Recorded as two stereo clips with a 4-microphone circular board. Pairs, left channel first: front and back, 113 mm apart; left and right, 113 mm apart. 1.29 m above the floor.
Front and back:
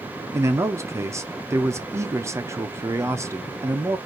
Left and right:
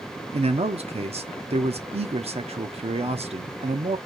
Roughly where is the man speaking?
Behind right.